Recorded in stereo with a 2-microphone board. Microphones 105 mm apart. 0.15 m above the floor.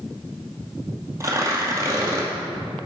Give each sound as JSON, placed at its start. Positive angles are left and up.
{"t": 1.2, "sound": "tearing paper", "side_deg": -30, "distance_m": 2.0}